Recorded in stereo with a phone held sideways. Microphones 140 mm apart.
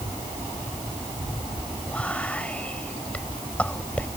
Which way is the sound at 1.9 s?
10° left (ahead or behind).